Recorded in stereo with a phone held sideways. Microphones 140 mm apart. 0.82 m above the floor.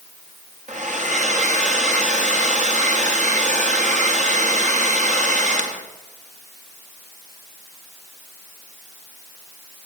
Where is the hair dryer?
60° right (ahead or behind), 1.3 m.